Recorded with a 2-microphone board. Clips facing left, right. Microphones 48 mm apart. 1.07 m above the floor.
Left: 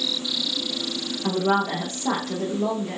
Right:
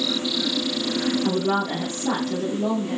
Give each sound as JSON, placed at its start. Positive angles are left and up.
{"t": 1.2, "sound": "a woman speaking", "side_deg": 25, "distance_m": 1.8}